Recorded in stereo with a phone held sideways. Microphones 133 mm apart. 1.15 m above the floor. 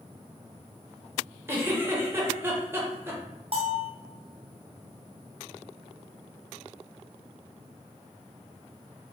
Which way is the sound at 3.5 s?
45° right (ahead or behind).